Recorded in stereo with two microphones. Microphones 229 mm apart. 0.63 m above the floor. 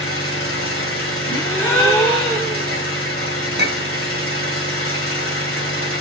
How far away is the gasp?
About 2.5 m.